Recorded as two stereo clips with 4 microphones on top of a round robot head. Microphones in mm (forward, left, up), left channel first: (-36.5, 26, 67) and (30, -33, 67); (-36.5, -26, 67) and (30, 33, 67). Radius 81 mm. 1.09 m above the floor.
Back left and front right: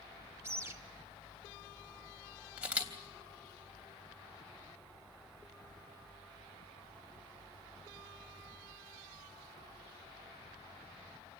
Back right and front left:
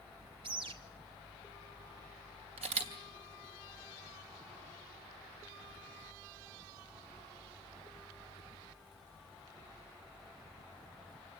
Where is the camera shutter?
35° left, 3.5 m.